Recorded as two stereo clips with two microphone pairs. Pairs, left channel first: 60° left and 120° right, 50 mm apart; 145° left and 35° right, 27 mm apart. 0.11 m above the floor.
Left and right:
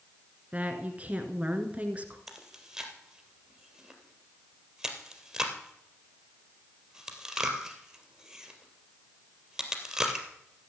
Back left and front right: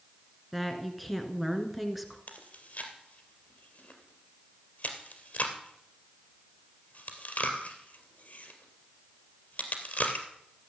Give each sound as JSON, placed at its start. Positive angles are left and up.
{"t": 0.5, "sound": "a woman speaking", "azimuth_deg": -120, "distance_m": 1.8}
{"t": 2.3, "sound": "chewing", "azimuth_deg": 160, "distance_m": 2.5}